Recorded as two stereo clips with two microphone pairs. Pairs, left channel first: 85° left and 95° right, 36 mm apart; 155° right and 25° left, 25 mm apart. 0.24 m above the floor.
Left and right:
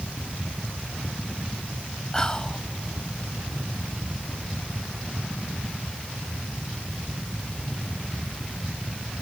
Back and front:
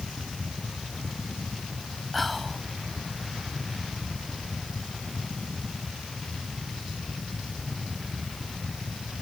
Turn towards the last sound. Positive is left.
turn(degrees=125)